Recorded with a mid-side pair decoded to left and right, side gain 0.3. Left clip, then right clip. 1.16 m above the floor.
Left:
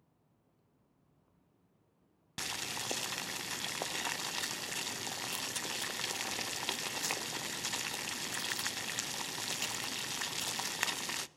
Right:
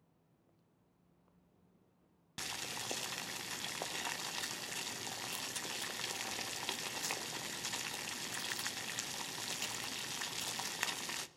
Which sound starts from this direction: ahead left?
Boiling, at 2.4 s.